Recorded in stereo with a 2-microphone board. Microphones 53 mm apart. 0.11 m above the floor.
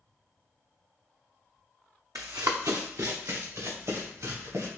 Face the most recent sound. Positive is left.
turn(degrees=-70)  # may be behind; listen again after turning